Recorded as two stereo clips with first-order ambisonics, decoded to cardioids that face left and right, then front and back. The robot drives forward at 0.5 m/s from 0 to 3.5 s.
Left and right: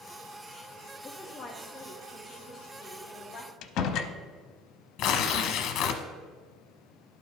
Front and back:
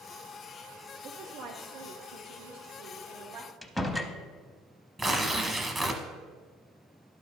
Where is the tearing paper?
110° left, 0.8 m.